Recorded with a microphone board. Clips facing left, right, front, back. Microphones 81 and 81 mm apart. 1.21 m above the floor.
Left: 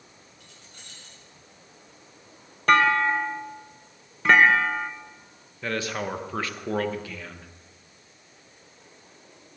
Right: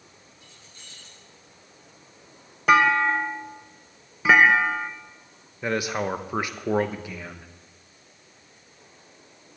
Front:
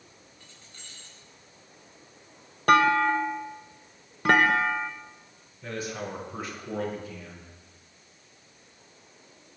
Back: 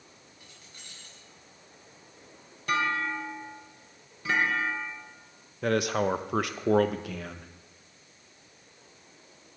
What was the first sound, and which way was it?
Keys jangling, 100° left.